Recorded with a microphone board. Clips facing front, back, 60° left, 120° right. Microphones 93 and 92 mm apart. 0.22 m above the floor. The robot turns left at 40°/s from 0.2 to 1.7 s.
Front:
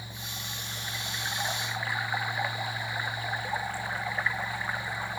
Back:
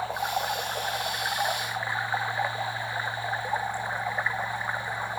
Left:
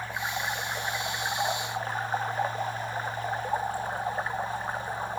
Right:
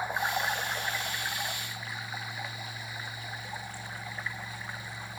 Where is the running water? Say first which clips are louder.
Back 15 dB, right 2 dB; 165° left; by 5.2 s 105° left.